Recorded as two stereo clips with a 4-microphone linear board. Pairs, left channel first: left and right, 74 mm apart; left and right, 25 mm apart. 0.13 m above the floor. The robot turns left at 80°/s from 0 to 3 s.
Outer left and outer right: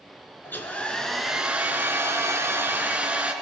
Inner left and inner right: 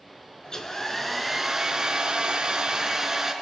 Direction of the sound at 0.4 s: 60° left.